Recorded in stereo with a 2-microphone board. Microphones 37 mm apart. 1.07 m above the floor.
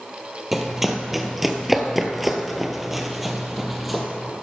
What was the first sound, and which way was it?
Running footsteps, 5° right (ahead or behind).